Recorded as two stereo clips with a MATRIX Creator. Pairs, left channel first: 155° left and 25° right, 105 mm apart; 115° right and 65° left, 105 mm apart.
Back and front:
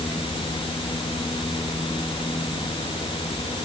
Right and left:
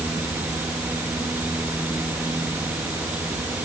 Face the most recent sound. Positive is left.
No sound to turn to.